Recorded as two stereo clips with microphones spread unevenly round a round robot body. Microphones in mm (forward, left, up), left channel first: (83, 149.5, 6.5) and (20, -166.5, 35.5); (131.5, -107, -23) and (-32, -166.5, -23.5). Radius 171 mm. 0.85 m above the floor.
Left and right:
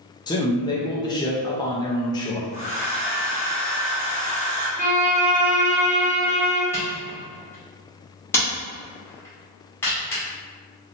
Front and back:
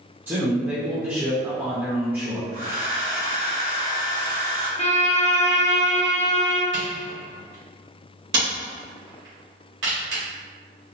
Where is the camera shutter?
160° left, 1.1 m.